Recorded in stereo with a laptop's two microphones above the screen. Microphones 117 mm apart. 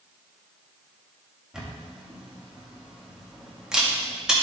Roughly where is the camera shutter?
Centre.